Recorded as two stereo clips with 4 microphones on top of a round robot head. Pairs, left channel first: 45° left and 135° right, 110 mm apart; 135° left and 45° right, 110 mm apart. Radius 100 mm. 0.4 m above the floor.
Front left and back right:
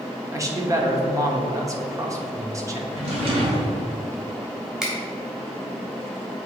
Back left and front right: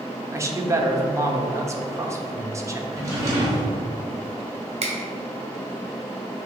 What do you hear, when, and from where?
0.3 s a man speaking: 95° right, 1.1 m
2.9 s a drawer: 105° right, 2 m
4.8 s a finger snap: 55° right, 1.9 m